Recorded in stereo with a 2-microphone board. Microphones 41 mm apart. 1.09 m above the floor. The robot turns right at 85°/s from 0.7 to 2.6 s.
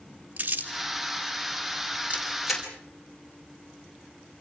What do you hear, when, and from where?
0.4 s crumpling: 40° right (ahead or behind), 4 m
2.1 s a camera shutter: 35° right (ahead or behind), 5.5 m; by 2.7 s 10° left (ahead or behind), 5.5 m